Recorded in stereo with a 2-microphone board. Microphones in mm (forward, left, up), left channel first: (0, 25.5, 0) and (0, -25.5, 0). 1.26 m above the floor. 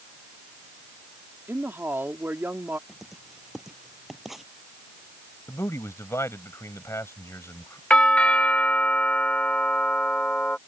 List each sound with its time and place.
1.5 s a woman speaking: 45° right (ahead or behind)
2.9 s writing: 5° right (ahead or behind)
5.5 s a man speaking: 70° left (ahead or behind)
7.9 s a doorbell: 25° left (ahead or behind)